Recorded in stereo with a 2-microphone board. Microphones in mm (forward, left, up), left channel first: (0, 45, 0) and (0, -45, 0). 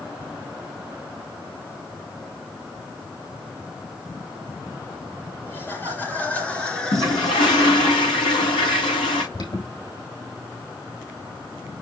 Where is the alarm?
55° left (ahead or behind), 4 m.